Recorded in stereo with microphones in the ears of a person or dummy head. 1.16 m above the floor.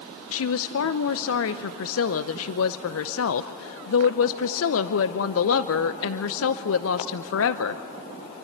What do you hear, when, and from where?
0.3 s a woman speaking: 65° left (ahead or behind), 0.6 m